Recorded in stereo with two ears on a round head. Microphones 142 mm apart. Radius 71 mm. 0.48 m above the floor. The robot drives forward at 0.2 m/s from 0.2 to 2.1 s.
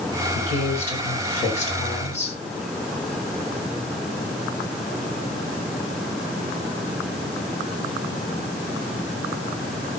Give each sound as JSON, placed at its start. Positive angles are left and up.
{"t": 0.3, "sound": "a woman speaking", "side_deg": 50, "distance_m": 6.5}